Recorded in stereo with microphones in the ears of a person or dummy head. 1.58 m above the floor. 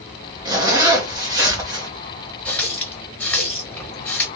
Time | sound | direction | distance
0.5 | a zipper | 25° right (ahead or behind) | 0.6 m
2.5 | a running tap | 5° left (ahead or behind) | 0.6 m